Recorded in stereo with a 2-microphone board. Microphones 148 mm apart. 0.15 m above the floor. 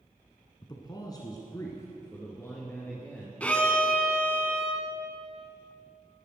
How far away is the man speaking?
About 1.1 m.